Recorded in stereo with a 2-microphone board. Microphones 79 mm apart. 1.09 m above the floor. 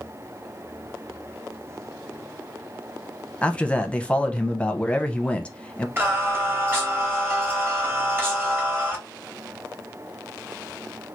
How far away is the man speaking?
About 0.7 m.